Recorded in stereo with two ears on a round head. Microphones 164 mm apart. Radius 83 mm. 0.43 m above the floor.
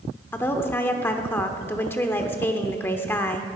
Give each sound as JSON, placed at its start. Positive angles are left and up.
{"t": 0.3, "sound": "a woman speaking", "side_deg": 10, "distance_m": 1.0}